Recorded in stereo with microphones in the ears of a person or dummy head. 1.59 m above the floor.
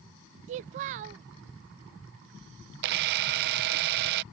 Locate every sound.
0.5 s a child speaking: 40° right (ahead or behind)
2.8 s a camera shutter: 60° right (ahead or behind)